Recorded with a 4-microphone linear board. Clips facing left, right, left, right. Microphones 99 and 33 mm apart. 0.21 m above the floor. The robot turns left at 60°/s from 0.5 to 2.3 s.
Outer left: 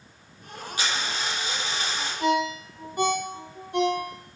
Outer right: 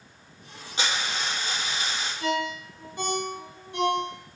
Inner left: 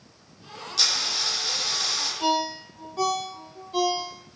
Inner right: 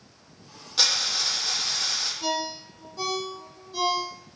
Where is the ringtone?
45° left (ahead or behind), 3.5 m; by 4.1 s 50° left (ahead or behind), 3.5 m.